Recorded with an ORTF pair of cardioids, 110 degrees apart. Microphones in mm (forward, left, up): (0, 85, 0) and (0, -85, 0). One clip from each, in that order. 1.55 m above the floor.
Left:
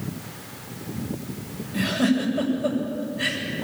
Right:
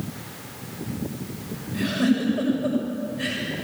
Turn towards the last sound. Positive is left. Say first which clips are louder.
# left 1 dB
turn(degrees=20)